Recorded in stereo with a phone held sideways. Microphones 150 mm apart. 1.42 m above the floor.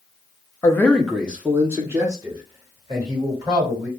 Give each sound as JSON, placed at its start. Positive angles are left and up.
{"t": 0.6, "sound": "a man speaking", "side_deg": 25, "distance_m": 0.6}